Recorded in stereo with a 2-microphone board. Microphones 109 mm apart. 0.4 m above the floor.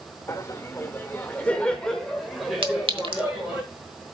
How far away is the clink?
About 1.1 m.